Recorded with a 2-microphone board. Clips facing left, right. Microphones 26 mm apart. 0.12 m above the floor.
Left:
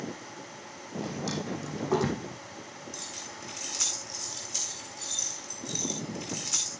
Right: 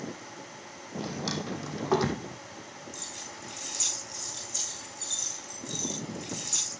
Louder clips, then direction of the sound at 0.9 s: Even; 40° right (ahead or behind).